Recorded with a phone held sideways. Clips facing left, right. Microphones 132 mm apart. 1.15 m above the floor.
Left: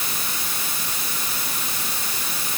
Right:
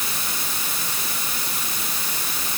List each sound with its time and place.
Only background noise.